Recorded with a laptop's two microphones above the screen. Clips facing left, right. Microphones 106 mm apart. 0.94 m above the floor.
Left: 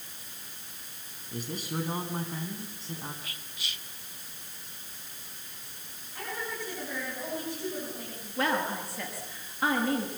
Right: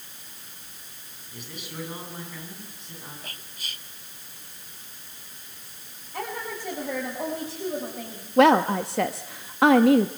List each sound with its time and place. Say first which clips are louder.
1.3 s a man speaking: left 5 dB; 40° left (ahead or behind), 7 m; by 3.1 s 30° left (ahead or behind), 7 m
3.2 s whispering: right 1 dB; 45° right (ahead or behind), 0.9 m
6.1 s a woman speaking: right 4 dB; 80° right, 7 m
8.4 s a woman speaking: right 12 dB; 75° right (ahead or behind), 0.9 m